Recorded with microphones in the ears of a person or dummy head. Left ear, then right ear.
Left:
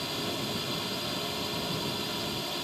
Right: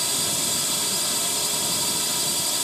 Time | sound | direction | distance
0.0 | a drone | 70° right (ahead or behind) | ?